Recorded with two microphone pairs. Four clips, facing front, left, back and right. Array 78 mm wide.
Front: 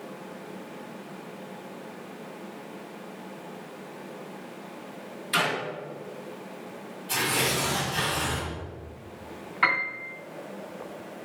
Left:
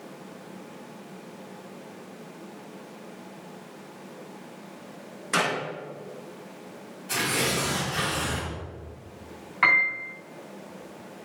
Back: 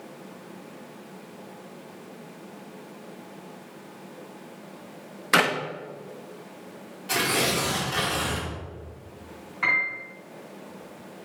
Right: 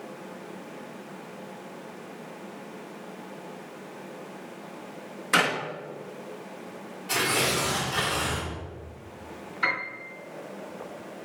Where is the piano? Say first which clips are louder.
Left 7 dB, front 1 dB; 70° left, 3 m.